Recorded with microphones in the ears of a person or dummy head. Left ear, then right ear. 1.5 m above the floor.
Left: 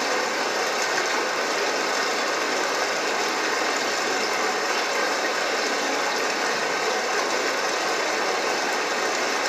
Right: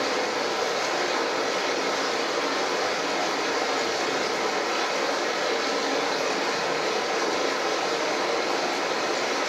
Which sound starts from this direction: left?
Running water, at 0.0 s.